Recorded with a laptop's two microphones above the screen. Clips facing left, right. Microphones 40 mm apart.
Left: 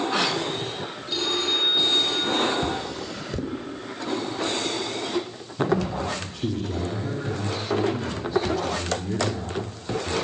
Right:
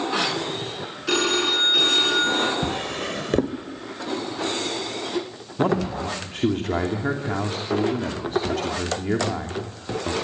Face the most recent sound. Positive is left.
turn(degrees=-55)  # may be behind; listen again after turning